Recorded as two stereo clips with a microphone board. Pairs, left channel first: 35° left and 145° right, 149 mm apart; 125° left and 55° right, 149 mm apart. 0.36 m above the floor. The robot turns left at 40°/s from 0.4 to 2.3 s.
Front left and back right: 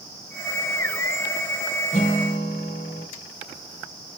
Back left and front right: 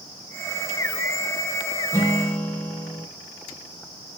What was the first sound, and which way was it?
A guitar, 55° left.